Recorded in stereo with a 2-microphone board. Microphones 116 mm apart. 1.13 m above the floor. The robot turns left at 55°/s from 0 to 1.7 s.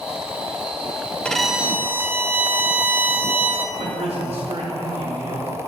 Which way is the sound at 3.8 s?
60° right (ahead or behind).